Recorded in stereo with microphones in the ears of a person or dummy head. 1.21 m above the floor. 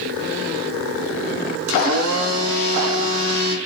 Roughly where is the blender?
Right.